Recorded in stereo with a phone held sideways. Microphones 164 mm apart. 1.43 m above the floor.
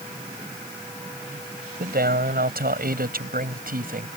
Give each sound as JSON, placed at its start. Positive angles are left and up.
{"t": 1.8, "sound": "a man speaking", "side_deg": -70}